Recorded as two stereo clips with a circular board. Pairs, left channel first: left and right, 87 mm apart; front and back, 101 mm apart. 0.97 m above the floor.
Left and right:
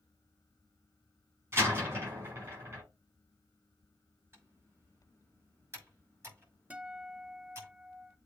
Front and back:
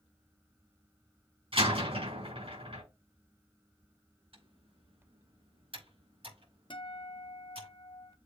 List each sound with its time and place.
1.5 s a door slam: 155° right, 5 m
4.3 s typing on a keyboard: 155° right, 6.5 m
6.7 s a guitar: 20° right, 0.9 m